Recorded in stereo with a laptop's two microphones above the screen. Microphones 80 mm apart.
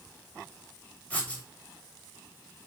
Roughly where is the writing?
Centre.